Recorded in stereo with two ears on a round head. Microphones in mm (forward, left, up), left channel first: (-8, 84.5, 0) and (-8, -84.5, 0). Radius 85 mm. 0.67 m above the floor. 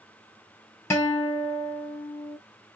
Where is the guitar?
15° left (ahead or behind), 1.6 m.